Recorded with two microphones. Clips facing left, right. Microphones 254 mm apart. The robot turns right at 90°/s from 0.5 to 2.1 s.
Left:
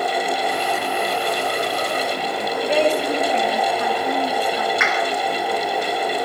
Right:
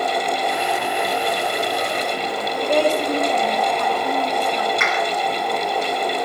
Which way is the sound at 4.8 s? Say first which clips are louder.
Even; 35° right (ahead or behind).